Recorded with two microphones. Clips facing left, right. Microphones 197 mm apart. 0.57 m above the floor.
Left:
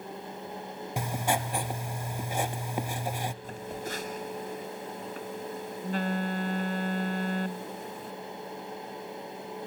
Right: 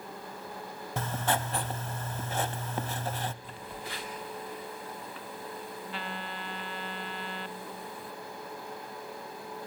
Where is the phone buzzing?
45° left (ahead or behind), 0.7 m.